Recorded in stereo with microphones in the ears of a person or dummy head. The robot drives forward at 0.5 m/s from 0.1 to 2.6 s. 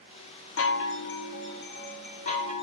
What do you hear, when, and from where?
0.6 s a chime: 65° left (ahead or behind), 0.8 m; by 2.6 s 30° left (ahead or behind), 1.5 m